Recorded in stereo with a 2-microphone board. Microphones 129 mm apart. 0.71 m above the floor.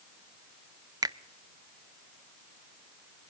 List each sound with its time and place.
1.0 s a finger snap: 30° right (ahead or behind), 0.6 m